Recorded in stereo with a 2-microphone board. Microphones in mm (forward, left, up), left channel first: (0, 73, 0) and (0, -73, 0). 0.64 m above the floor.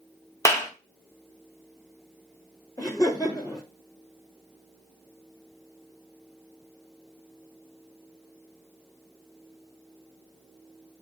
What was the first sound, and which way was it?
A clap, 20° left (ahead or behind).